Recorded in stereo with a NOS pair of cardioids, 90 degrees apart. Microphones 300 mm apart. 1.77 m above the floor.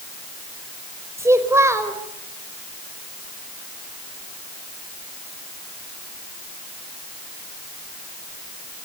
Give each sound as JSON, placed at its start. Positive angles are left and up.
{"t": 1.2, "sound": "a child speaking", "azimuth_deg": -10, "distance_m": 5.0}